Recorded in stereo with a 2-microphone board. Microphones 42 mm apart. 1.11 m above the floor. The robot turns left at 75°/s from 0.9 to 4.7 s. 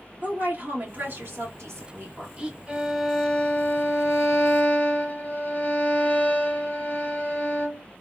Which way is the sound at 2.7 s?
155° right.